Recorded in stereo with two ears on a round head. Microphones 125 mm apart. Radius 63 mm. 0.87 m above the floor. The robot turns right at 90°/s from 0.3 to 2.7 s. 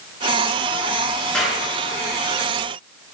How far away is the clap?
About 8 m.